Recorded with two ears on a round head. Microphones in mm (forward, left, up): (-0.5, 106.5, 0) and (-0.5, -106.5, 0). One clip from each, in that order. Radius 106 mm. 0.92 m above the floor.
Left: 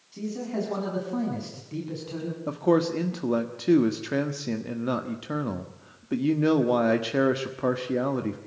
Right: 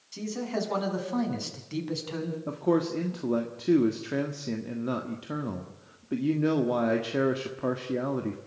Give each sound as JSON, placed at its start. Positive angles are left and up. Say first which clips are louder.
{"t": 0.1, "sound": "a man speaking", "louder": "even", "side_deg": -45, "distance_m": 7.0}
{"t": 2.5, "sound": "a man speaking", "louder": "left 4 dB", "side_deg": 20, "distance_m": 1.4}